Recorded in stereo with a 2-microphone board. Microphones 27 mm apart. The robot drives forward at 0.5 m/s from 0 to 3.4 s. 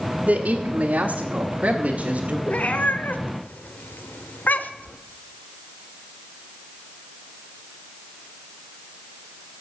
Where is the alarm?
I don't hear an alarm.